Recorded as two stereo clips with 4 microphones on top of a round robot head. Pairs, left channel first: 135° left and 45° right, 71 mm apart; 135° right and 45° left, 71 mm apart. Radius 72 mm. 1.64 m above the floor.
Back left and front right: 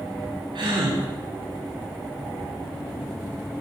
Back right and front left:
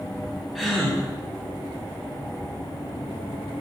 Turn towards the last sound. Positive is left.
turn(degrees=-40)